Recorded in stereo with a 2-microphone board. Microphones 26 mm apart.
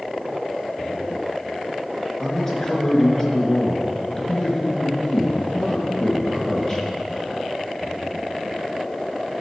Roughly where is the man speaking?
Left.